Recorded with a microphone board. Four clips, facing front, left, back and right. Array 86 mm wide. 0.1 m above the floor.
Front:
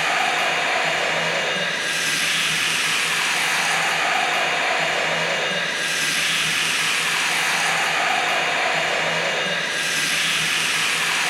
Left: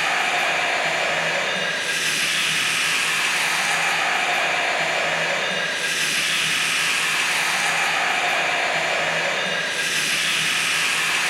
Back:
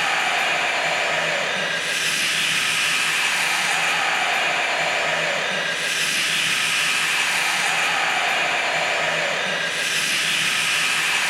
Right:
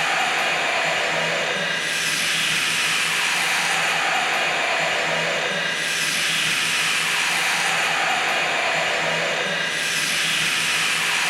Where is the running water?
10° right, 4 m.